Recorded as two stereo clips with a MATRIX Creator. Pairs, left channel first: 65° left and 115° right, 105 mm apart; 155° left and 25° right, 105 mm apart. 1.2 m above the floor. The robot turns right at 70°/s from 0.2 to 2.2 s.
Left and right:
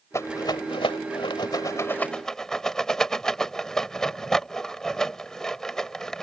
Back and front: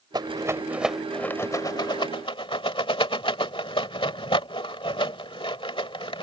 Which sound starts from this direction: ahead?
A rattle, at 0.1 s.